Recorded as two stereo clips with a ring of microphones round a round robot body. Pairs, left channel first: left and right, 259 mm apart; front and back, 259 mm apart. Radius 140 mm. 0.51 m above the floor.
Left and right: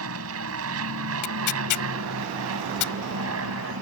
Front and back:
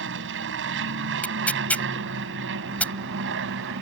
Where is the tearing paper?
85° left.